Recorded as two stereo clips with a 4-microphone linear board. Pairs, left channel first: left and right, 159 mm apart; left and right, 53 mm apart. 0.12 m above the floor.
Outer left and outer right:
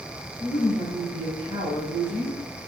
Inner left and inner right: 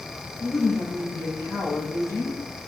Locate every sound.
0.4 s a woman speaking: 80° left, 7 m